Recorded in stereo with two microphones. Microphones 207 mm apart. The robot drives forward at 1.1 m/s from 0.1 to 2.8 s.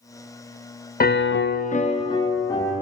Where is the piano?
45° left (ahead or behind), 0.6 m; by 2.8 s 15° left (ahead or behind), 1.7 m.